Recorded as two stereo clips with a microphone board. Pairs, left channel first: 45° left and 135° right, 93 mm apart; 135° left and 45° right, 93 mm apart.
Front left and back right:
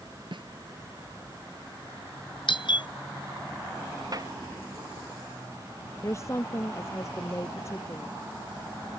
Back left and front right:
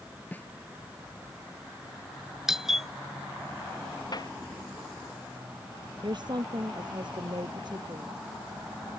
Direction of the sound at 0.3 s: 155° right.